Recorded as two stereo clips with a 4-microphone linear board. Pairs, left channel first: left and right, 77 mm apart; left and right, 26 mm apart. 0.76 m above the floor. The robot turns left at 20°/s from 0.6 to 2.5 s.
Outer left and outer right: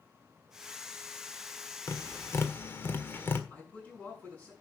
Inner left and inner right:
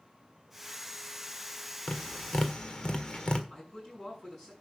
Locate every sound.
1.9 s tapping: 40° left (ahead or behind), 1.4 m; by 3.4 s 30° left (ahead or behind), 1.4 m
3.5 s a man speaking: 20° left (ahead or behind), 7.5 m